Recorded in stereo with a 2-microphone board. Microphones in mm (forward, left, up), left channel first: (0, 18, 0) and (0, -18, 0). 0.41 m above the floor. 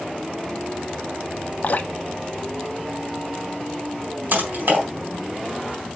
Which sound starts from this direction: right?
Typing on a keyboard, at 4.3 s.